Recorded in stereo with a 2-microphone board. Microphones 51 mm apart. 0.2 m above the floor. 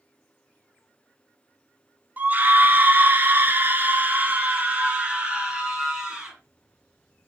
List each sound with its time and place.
2.2 s a scream: 30° right (ahead or behind), 1.8 m; by 6.3 s 15° right (ahead or behind), 2.5 m